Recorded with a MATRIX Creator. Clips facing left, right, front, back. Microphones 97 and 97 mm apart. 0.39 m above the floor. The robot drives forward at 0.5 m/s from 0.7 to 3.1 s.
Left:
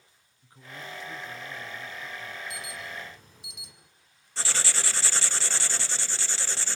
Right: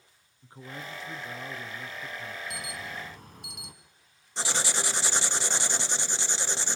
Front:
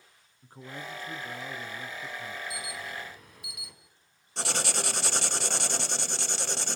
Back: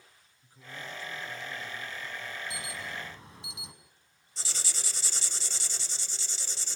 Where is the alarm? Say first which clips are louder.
Right 1 dB, front 1 dB; 120° right, 5 m.